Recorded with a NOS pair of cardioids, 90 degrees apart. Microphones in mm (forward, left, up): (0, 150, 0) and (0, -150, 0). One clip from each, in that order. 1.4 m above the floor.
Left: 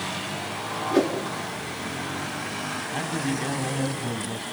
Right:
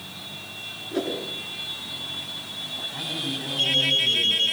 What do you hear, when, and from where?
0.9 s a whoosh: 55° left, 7 m
2.9 s a man speaking: 55° left, 8.5 m